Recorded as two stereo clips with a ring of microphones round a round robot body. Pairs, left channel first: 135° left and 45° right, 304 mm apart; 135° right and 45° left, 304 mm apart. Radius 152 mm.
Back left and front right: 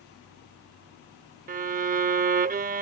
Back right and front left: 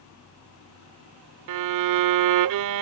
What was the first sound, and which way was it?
A violin, 20° left.